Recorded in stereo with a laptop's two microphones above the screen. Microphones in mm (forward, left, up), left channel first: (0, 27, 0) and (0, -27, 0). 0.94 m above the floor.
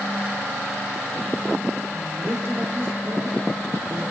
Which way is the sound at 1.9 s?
55° right (ahead or behind).